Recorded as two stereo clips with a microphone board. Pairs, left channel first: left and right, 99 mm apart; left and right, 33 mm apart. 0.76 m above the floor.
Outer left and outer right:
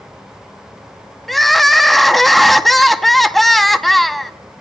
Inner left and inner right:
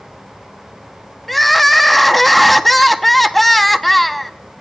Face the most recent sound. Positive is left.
turn(degrees=0)  # may be behind; listen again after turning